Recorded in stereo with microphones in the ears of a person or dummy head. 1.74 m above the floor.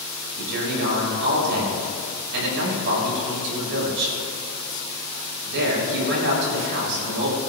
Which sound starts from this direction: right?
A man speaking, at 0.4 s.